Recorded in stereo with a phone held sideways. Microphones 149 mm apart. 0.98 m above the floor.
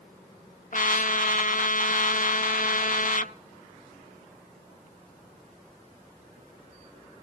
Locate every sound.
0.7 s a trumpet: 60° left (ahead or behind), 0.8 m